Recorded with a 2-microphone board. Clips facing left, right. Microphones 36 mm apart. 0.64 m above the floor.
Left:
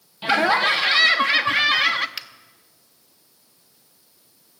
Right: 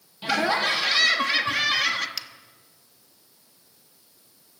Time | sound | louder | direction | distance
0.2 | laughter | left 5 dB | 25° left (ahead or behind) | 1.2 m
2.2 | a finger snap | left 2 dB | 30° left (ahead or behind) | 1.1 m